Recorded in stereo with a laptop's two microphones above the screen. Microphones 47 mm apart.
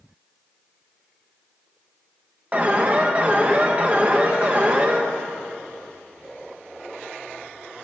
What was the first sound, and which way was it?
An alarm, 30° right (ahead or behind).